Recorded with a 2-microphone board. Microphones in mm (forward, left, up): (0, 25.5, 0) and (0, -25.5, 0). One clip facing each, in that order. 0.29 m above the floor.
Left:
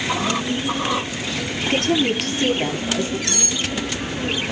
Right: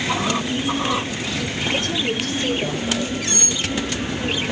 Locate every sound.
1.6 s a woman speaking: 80° left, 7 m
3.3 s cutlery clinking: 85° left, 8 m